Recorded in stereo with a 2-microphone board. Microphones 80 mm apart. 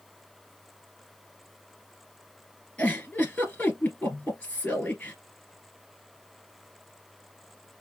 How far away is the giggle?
About 2 m.